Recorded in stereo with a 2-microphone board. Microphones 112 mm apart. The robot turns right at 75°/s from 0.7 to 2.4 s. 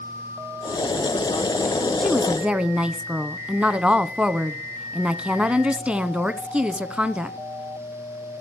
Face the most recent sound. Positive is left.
turn(degrees=-160)